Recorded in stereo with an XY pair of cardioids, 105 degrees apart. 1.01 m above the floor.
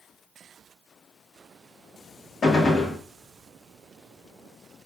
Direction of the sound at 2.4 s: 40° left.